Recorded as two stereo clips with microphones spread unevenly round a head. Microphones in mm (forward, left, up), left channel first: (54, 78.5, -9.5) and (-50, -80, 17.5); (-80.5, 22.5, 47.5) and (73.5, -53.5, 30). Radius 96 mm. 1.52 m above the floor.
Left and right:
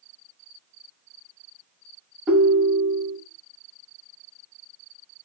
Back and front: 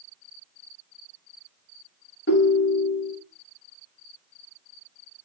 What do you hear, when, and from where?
2.3 s a ringtone: 155° left, 1.1 m